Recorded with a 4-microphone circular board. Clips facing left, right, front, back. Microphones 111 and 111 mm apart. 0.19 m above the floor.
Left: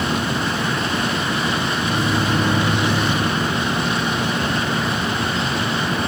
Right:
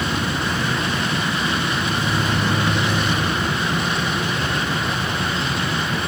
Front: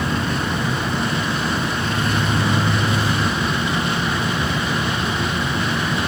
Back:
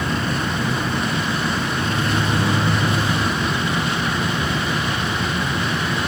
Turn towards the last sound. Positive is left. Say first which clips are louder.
# left 2 dB, even
turn(degrees=115)